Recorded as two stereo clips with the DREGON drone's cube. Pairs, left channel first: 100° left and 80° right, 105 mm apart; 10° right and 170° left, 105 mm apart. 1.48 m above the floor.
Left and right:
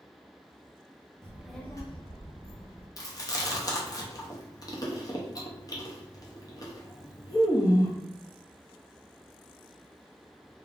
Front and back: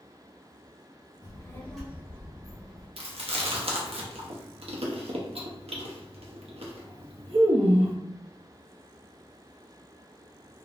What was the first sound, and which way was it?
A child speaking, 20° right.